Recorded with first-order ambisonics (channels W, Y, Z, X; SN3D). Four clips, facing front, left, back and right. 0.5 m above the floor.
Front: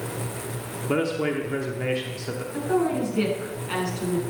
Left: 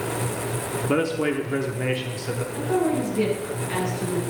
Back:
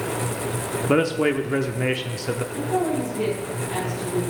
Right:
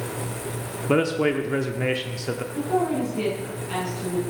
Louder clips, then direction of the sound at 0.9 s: Right 2 dB, back 4 dB; 160° right.